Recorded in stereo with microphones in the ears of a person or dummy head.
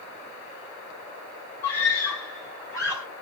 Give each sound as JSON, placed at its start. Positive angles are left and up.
{"t": 1.6, "sound": "a scream", "side_deg": 15, "distance_m": 6.5}